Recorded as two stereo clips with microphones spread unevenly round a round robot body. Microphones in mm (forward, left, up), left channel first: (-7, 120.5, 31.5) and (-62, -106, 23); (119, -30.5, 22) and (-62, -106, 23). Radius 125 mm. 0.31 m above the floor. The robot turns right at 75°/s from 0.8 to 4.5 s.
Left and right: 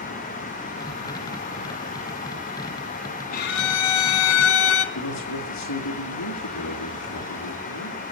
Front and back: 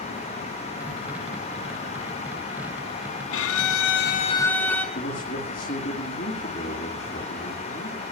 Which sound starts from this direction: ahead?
A violin, at 3.3 s.